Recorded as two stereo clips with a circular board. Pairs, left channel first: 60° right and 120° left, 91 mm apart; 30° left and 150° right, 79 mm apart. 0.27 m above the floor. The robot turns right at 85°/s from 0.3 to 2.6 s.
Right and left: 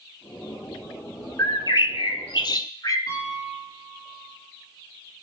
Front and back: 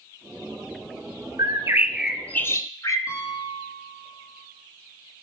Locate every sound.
1.4 s a bird: 120° right, 0.8 m; by 3.0 s 15° right, 0.8 m
3.1 s a piano: 5° right, 4.5 m